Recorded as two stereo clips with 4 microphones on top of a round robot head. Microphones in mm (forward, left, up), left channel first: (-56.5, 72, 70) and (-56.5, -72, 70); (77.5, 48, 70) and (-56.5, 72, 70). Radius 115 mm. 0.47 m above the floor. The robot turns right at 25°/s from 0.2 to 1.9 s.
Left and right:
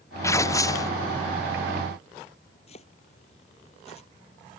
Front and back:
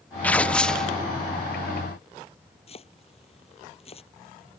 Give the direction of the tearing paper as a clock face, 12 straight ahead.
10 o'clock.